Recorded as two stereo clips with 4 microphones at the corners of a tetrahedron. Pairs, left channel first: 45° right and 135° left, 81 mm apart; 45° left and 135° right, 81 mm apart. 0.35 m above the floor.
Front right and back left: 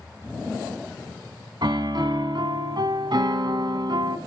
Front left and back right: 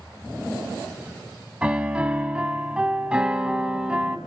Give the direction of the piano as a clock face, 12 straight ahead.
7 o'clock.